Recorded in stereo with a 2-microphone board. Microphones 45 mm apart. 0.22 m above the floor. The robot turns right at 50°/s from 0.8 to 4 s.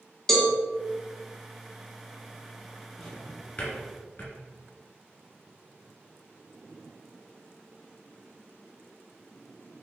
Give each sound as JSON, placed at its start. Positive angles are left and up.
{"t": 0.3, "sound": "a cowbell", "side_deg": 10, "distance_m": 0.9}
{"t": 3.0, "sound": "a drawer", "side_deg": 5, "distance_m": 1.8}